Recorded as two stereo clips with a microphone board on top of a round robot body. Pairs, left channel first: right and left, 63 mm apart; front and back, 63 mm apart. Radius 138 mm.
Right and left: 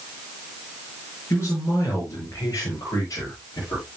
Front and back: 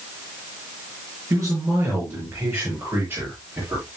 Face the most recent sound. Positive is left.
turn(degrees=-125)